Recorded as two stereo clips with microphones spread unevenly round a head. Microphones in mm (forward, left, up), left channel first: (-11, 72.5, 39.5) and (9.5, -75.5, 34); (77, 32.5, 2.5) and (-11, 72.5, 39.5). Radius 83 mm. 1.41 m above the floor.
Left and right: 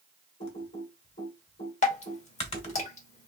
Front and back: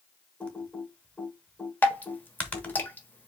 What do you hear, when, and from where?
0.4 s typing on a keyboard: 45° left, 1.4 m
1.8 s dripping: 55° left, 1.1 m